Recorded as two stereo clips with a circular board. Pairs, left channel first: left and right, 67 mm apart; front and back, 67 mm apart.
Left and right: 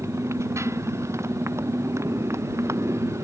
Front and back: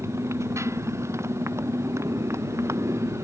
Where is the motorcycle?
135° right.